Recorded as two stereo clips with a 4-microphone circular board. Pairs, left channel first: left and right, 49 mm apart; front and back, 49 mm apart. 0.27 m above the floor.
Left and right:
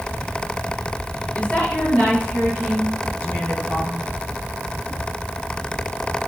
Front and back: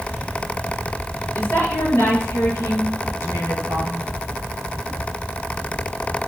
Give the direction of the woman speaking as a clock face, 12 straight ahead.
11 o'clock.